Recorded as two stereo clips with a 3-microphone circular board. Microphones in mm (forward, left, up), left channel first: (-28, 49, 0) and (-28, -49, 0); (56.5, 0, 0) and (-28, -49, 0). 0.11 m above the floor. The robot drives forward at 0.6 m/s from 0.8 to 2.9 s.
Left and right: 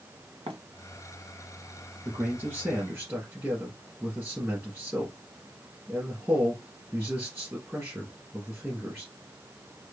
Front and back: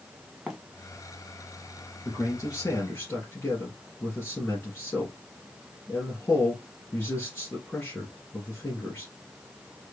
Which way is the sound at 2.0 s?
20° right.